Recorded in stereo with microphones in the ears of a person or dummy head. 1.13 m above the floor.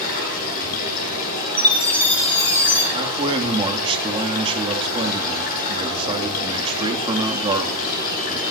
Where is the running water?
50° left (ahead or behind), 9.5 m.